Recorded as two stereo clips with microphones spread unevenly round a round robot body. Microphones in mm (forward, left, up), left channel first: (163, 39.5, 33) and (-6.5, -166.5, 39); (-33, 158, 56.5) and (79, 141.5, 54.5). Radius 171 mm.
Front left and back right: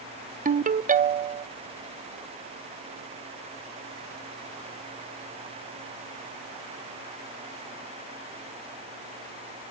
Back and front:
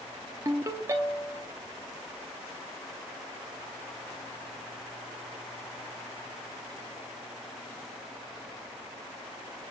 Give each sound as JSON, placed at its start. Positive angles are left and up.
{"t": 0.5, "sound": "a ringtone", "azimuth_deg": -75, "distance_m": 0.7}